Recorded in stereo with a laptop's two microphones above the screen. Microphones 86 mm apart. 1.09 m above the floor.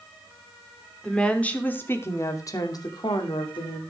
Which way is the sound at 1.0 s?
10° left (ahead or behind).